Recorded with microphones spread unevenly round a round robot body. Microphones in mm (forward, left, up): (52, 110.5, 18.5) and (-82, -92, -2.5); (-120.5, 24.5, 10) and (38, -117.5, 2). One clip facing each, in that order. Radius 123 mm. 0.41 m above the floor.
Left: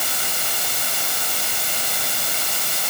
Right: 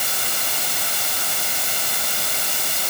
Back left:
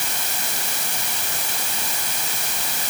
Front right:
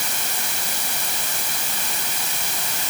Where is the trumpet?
No trumpet in this recording.